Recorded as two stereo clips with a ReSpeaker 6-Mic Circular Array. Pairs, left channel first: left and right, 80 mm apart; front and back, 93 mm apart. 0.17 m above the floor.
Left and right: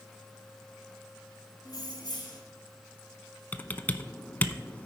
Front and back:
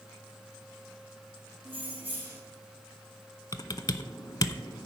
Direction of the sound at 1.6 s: 115° left.